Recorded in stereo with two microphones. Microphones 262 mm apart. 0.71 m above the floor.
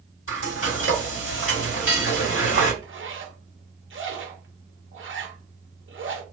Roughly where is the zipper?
Right.